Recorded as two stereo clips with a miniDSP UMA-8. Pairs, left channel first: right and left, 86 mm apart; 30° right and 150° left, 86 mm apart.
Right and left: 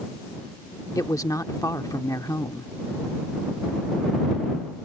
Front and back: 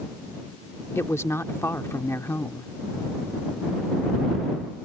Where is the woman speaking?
70° right.